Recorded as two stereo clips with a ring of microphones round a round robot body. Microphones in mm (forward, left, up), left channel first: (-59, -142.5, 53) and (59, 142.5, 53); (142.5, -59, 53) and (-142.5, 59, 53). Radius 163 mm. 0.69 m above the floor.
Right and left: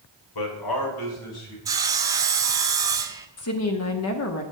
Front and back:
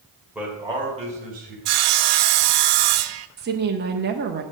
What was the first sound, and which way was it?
A man speaking, 115° right.